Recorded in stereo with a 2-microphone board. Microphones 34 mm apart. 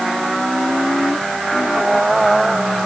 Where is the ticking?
I don't hear ticking.